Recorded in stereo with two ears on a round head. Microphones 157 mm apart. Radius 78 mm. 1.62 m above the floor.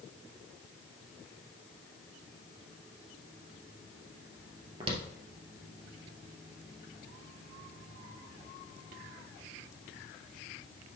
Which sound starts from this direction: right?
Footsteps, at 4.8 s.